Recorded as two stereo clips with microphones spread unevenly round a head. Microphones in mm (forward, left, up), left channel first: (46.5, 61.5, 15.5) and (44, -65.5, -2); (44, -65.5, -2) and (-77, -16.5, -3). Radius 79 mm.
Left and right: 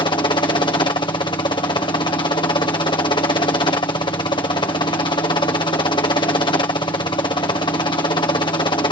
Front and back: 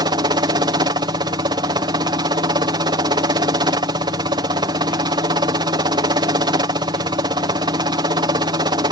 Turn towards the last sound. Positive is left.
turn(degrees=130)